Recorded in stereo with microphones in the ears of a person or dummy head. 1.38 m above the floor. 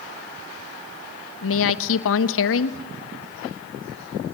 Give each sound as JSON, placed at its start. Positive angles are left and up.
{"t": 1.4, "sound": "a woman speaking", "side_deg": 70, "distance_m": 1.3}